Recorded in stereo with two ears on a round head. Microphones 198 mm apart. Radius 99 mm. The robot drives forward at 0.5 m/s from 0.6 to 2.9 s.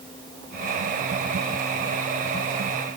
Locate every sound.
Only background noise.